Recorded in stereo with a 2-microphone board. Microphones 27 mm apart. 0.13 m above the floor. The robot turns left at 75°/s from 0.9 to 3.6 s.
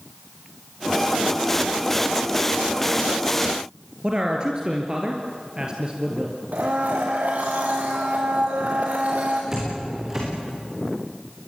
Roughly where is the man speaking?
Right.